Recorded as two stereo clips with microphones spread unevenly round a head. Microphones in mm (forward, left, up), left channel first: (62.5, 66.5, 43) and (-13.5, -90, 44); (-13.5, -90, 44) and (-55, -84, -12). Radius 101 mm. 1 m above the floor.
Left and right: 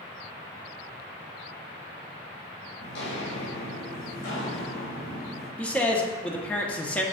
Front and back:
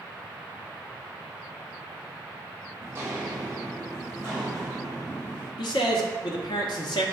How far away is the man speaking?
About 0.9 m.